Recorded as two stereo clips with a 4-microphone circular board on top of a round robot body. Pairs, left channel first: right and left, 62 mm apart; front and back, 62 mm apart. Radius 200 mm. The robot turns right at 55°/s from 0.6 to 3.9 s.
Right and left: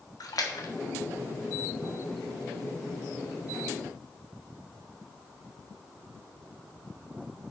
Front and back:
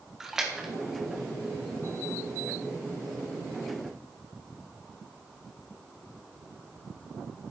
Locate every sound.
0.2 s a splash: 100° right, 1.6 m; by 0.7 s 90° right, 1.6 m